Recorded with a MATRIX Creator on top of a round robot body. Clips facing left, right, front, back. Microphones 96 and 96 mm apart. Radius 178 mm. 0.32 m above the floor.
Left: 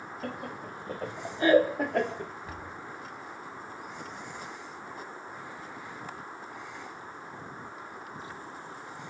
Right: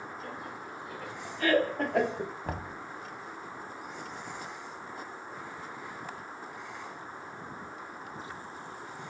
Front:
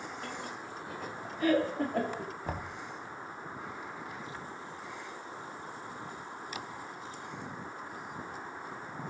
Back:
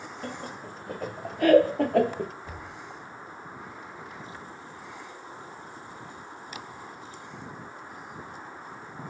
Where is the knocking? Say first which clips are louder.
Right 3 dB, front 3 dB; 50° right, 2 m.